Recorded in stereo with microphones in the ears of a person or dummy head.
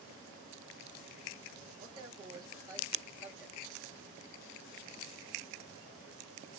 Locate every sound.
1.8 s a man speaking: 30° right (ahead or behind), 1.8 m; by 4.3 s 15° left (ahead or behind), 1.1 m